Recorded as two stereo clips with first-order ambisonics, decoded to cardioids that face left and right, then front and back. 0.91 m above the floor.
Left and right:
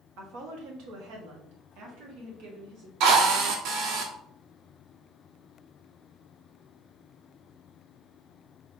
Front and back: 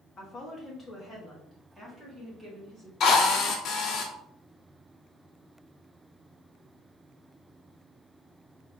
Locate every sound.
0.2 s a woman speaking: 65° right, 1.3 m; by 2.9 s 100° right, 2.5 m
3.0 s a drill: 50° right, 0.9 m